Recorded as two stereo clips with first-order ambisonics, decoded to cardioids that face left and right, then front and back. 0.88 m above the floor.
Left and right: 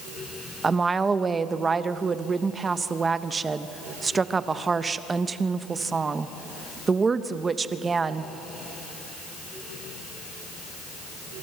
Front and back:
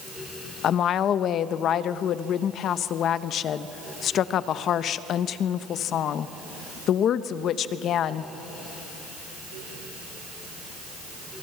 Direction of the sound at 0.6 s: 25° right.